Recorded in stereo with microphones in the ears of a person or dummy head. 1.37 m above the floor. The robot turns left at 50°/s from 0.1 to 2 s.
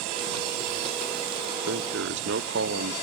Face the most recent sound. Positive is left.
turn(degrees=-60)  # may be behind; listen again after turning